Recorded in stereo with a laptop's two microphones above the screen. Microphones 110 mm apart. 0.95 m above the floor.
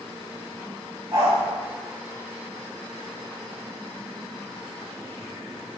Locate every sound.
1.1 s a dog barking: 40° right (ahead or behind), 1.2 m